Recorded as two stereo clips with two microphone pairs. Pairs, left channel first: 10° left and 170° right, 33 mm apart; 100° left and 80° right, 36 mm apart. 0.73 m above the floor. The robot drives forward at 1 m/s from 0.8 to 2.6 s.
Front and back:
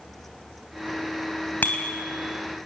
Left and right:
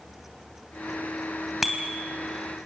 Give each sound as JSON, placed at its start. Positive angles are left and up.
{"t": 1.6, "sound": "a bicycle bell", "azimuth_deg": 5, "distance_m": 3.0}